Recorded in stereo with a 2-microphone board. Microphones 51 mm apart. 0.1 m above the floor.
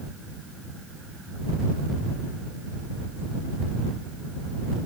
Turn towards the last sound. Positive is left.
No sound to turn to.